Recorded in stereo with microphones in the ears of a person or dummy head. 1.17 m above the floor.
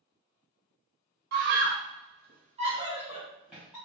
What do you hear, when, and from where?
1.3 s a scream: 60° right (ahead or behind), 1.1 m; by 3.8 s centre (ahead or behind), 1.6 m